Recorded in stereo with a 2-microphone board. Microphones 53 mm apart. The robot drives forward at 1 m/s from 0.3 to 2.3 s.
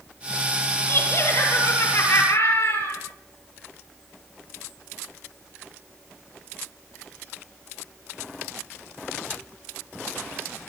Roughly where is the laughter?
Left.